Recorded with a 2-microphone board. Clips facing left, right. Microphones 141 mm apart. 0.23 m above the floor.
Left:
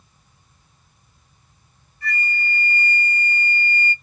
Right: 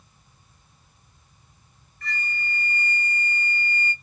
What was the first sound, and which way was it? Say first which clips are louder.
A flute: left 5 dB; 10° left (ahead or behind).